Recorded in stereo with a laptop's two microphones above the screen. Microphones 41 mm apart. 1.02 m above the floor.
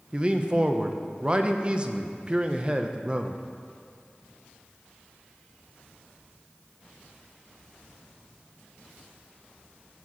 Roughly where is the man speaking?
Right.